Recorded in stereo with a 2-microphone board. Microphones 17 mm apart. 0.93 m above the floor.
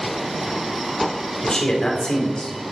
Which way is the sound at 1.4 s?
50° left (ahead or behind).